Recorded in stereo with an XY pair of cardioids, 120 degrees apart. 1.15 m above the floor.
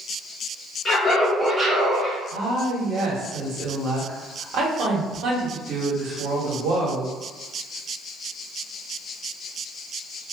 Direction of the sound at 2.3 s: 65° right.